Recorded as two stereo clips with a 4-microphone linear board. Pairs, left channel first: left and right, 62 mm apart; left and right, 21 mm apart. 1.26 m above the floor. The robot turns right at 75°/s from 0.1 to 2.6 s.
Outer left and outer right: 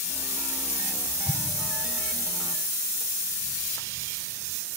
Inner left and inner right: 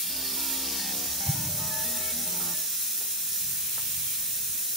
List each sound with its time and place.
1.3 s an explosion: 5° right (ahead or behind); by 1.7 s 40° right (ahead or behind)